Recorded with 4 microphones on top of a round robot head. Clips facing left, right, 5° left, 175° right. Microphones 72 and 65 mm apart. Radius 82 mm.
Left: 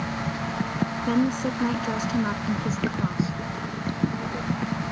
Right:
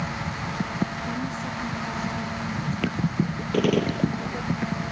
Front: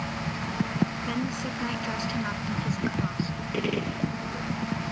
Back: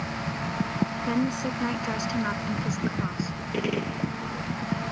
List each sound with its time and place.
1.1 s a woman speaking: 120° left; by 3.4 s 105° left
3.5 s a gunshot: 90° right